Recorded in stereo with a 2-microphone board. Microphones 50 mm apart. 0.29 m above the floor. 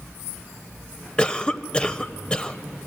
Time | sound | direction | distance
1.2 | a cough | 20° left (ahead or behind) | 0.9 m